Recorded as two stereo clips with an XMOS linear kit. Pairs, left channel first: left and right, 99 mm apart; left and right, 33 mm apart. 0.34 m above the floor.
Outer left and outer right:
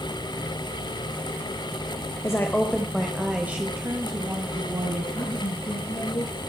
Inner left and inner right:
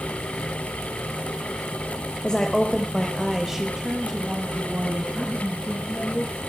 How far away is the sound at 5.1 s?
About 5.5 m.